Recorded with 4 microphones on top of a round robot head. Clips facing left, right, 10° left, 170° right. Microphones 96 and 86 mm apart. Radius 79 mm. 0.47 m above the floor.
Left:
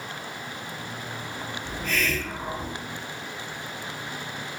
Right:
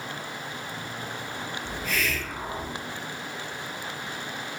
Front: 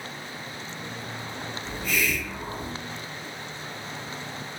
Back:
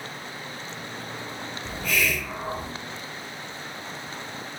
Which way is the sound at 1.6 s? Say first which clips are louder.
Left 2 dB, back 2 dB; 175° right.